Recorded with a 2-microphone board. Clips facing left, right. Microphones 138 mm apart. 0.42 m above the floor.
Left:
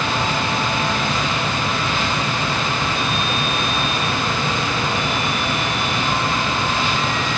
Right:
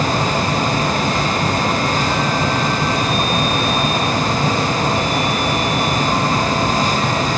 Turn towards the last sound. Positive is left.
No sound to turn to.